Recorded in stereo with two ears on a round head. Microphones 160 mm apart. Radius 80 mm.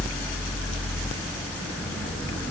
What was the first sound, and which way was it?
Only background noise.